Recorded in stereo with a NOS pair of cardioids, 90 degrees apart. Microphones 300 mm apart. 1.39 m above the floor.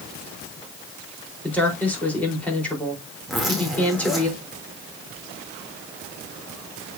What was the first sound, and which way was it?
A woman speaking, 5° left.